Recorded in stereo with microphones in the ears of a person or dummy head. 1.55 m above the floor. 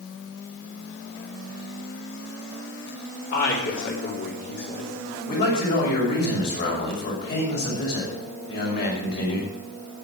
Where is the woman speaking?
60° left (ahead or behind), 3.5 m.